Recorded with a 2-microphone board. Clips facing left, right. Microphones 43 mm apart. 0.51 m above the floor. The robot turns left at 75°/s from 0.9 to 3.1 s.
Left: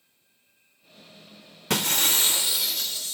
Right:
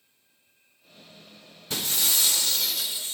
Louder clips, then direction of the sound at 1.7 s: Left 4 dB; 80° left.